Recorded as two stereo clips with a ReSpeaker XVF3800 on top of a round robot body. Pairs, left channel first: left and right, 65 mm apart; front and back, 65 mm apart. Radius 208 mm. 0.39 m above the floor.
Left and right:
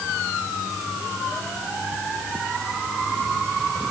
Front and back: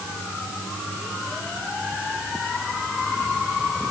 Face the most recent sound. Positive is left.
No sound to turn to.